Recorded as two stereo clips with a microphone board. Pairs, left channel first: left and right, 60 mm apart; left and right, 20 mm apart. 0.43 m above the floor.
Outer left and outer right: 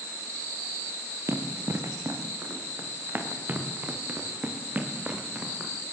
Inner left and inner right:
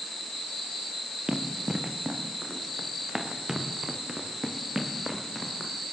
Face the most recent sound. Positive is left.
turn(degrees=-20)  # may be behind; listen again after turning